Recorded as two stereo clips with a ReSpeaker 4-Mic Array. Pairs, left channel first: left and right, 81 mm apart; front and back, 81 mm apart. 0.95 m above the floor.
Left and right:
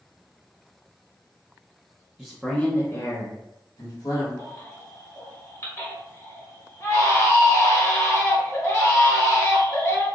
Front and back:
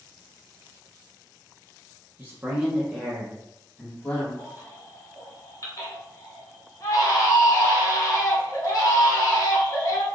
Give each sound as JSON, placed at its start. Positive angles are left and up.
{"t": 2.2, "sound": "a man speaking", "azimuth_deg": -170, "distance_m": 0.7}
{"t": 4.4, "sound": "a baby crying", "azimuth_deg": 40, "distance_m": 1.1}